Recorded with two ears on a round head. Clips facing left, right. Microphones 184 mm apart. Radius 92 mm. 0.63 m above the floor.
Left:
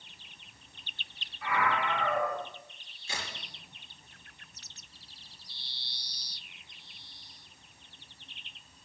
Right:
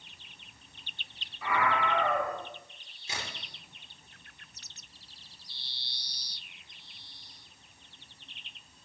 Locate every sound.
1.4 s a scream: 75° right (ahead or behind), 3.5 m
3.1 s a crack: 20° right (ahead or behind), 7 m